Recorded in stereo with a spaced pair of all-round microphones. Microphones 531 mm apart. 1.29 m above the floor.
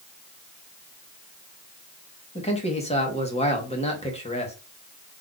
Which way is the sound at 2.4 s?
10° left (ahead or behind).